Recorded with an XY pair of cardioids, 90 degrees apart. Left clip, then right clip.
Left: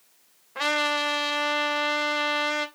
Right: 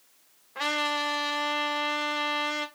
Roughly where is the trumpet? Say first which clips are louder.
Left 3 dB; ahead left.